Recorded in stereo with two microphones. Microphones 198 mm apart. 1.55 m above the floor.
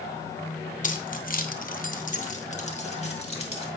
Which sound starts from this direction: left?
Keys jangling, at 0.8 s.